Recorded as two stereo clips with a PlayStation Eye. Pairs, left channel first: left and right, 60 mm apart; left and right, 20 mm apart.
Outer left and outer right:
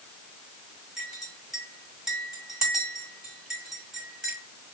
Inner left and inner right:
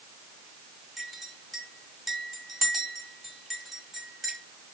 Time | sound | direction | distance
1.0 | a clink | 5° right (ahead or behind) | 1.8 m